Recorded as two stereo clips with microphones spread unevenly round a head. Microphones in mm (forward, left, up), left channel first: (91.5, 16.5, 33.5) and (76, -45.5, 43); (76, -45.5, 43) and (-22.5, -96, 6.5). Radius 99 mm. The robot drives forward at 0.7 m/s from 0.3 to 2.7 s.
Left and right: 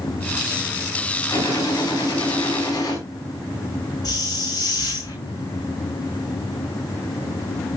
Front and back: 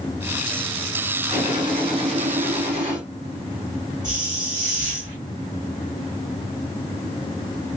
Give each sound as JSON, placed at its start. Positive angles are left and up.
{"t": 1.3, "sound": "a gunshot", "azimuth_deg": 135, "distance_m": 6.5}
{"t": 4.0, "sound": "a hiss", "azimuth_deg": 135, "distance_m": 8.5}